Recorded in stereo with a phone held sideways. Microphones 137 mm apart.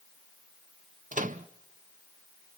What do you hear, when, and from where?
1.1 s a microwave: 80° right, 0.7 m